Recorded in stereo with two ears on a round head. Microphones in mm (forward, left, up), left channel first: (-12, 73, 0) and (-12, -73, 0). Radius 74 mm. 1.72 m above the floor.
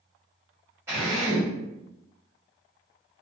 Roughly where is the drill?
Centre.